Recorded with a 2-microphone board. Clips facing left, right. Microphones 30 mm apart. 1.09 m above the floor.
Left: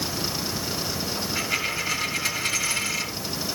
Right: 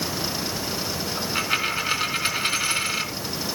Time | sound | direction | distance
1.2 | a dropped coin | 40° right (ahead or behind) | 3 m